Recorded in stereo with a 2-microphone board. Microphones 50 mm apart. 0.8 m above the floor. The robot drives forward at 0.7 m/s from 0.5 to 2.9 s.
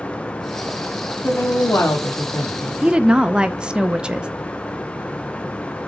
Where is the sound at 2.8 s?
15° right (ahead or behind), 0.5 m; by 4.3 s 20° right (ahead or behind), 0.5 m.